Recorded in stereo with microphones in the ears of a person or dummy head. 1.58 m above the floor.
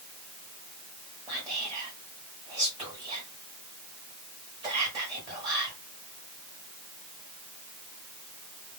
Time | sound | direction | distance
1.3 | whispering | 25° right (ahead or behind) | 1.1 m